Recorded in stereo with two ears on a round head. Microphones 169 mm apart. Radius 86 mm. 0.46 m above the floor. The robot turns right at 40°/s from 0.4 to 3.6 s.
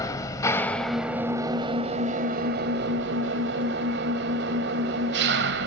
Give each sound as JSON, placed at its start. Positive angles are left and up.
{"t": 0.0, "sound": "an engine running", "azimuth_deg": 160, "distance_m": 1.8}